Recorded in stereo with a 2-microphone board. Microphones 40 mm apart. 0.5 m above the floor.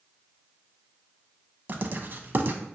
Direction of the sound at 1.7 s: 50° right (ahead or behind).